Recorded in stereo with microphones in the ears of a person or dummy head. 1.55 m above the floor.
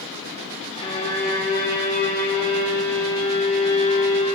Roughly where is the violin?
Left.